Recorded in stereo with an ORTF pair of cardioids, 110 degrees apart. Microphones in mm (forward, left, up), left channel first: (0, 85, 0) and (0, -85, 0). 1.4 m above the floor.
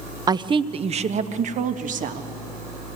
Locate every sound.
0.3 s a woman speaking: 25° right, 0.7 m; by 2.3 s 55° right, 1.8 m